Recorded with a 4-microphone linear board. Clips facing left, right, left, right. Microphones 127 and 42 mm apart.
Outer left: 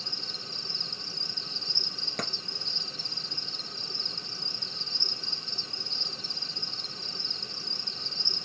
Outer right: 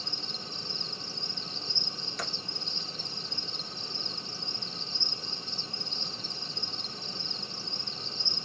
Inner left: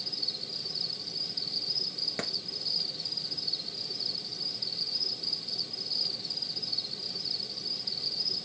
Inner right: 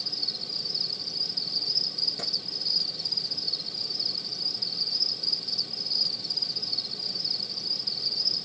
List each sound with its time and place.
0.0 s an insect: 25° left (ahead or behind), 1.8 m
2.2 s a clap: 55° left (ahead or behind), 1.6 m